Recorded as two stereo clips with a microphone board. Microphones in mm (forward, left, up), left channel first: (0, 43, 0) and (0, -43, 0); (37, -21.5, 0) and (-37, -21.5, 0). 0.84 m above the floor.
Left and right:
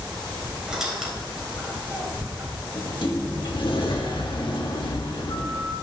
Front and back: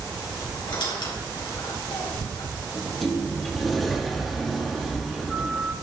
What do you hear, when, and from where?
0.7 s a squeak: 5° right, 3.5 m
2.8 s a sliding door: 90° left, 1.6 m